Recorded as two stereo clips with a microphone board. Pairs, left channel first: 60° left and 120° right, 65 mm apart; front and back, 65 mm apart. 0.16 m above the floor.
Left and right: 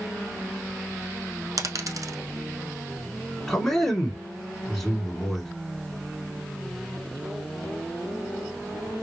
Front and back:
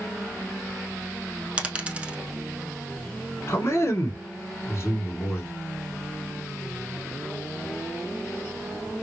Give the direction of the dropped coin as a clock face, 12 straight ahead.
4 o'clock.